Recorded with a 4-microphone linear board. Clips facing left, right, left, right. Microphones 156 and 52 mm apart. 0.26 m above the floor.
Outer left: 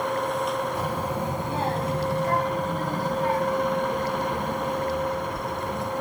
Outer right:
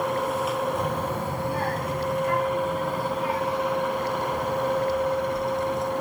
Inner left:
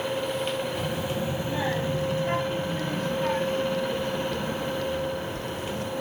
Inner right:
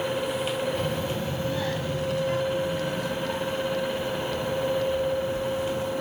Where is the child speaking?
5° left (ahead or behind), 1.2 m; by 5.9 s 60° left (ahead or behind), 3.5 m.